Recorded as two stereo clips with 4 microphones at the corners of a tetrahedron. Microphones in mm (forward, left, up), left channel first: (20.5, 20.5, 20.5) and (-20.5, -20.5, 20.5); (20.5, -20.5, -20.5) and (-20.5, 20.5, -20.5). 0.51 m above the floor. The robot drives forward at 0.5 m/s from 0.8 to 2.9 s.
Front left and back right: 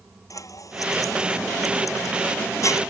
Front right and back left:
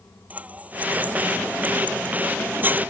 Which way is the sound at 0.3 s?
70° left.